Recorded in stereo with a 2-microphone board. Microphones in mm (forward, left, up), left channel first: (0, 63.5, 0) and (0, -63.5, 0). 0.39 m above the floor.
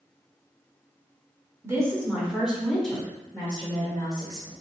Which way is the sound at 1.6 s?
25° right (ahead or behind).